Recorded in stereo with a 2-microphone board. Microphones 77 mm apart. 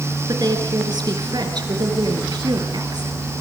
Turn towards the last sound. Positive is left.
turn(degrees=-65)  # may be behind; listen again after turning